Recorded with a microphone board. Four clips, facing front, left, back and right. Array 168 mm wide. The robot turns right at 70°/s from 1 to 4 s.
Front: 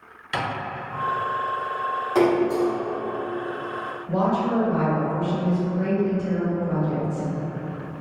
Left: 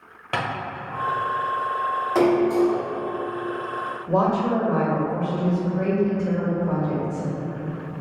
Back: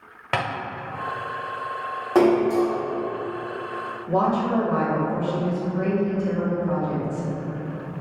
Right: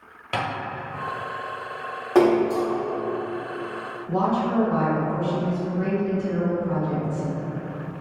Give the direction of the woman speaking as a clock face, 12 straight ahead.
8 o'clock.